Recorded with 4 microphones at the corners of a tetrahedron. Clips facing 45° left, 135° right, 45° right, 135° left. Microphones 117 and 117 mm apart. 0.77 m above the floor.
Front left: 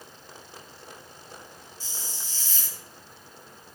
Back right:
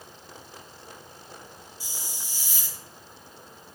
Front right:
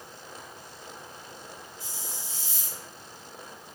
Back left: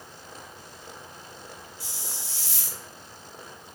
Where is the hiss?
150° left, 1.4 m.